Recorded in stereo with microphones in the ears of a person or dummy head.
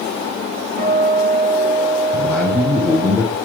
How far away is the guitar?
About 1.5 m.